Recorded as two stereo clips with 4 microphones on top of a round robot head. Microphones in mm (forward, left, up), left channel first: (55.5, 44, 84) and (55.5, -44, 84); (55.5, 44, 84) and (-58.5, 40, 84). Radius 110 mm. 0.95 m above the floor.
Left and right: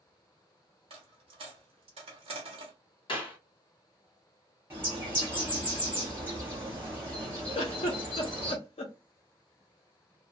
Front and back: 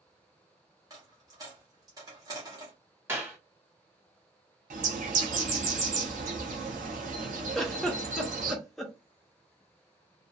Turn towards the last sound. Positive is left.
turn(degrees=90)